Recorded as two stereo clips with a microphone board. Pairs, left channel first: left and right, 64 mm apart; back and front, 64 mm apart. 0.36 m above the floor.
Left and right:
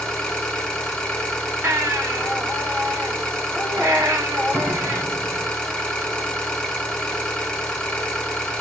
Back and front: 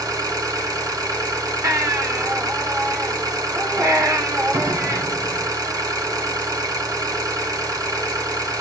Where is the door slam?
30° right, 3 m.